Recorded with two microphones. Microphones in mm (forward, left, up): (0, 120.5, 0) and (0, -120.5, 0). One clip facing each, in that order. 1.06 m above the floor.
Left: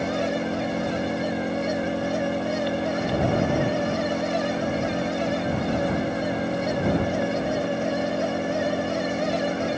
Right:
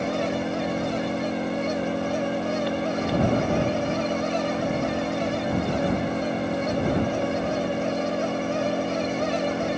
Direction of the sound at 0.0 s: Centre (ahead or behind).